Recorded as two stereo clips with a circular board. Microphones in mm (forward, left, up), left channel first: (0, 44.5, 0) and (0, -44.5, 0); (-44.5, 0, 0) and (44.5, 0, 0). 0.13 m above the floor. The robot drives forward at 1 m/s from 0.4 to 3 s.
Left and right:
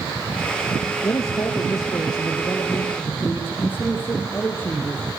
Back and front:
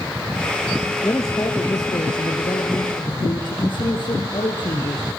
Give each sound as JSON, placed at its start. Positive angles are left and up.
{"t": 1.0, "sound": "a man speaking", "azimuth_deg": 125, "distance_m": 1.8}